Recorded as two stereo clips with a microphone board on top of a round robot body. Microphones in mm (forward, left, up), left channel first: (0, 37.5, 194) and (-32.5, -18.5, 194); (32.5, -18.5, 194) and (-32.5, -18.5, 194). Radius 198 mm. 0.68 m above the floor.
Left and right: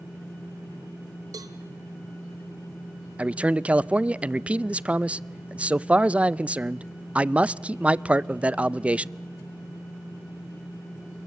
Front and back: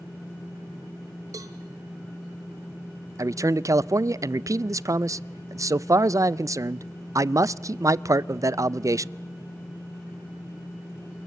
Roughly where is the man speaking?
Behind.